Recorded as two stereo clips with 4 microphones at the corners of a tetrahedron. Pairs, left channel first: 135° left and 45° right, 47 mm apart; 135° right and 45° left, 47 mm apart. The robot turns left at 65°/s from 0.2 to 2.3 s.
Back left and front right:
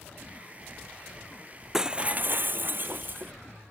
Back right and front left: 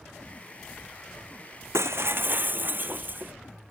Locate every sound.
1.7 s breaking glass: 35° left; by 3.3 s straight ahead